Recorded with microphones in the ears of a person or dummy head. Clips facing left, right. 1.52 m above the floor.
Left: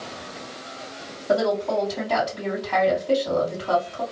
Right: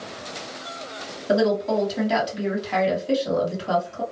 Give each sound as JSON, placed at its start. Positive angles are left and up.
{"t": 1.3, "sound": "a woman speaking", "side_deg": -25, "distance_m": 1.7}